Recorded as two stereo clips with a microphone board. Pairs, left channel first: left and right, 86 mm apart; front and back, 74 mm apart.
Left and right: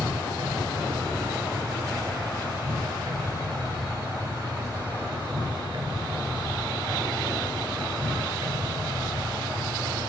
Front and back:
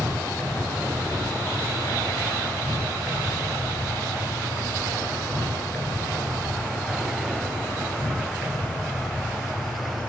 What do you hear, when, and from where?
0.0 s an insect: 70° right, 2 m